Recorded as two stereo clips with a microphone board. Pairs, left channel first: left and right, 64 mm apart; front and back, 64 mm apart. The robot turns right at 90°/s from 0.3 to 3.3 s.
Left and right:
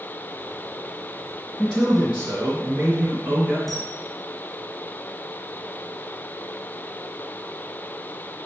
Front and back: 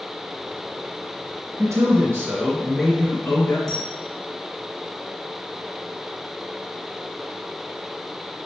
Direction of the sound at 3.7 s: 80° left.